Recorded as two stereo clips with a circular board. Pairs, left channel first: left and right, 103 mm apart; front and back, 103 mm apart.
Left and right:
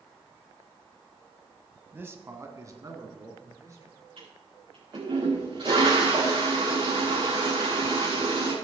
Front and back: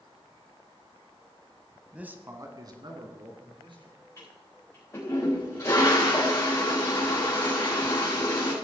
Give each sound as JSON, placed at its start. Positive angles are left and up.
{"t": 1.9, "sound": "a man speaking", "azimuth_deg": -115, "distance_m": 1.1}
{"t": 4.2, "sound": "a toilet flushing", "azimuth_deg": -60, "distance_m": 5.5}